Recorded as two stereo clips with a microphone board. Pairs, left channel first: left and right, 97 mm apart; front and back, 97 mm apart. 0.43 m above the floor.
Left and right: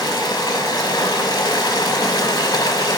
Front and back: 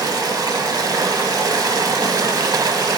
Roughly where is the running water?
Behind left.